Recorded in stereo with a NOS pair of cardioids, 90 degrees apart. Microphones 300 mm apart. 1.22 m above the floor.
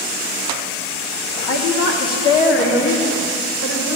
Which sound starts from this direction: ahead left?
A woman speaking, at 1.5 s.